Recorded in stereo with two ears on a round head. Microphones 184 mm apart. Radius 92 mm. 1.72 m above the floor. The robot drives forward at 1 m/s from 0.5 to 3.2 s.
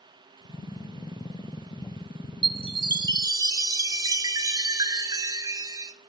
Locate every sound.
2.4 s a chime: 25° right (ahead or behind), 1.2 m; by 5.9 s 20° right (ahead or behind), 1.6 m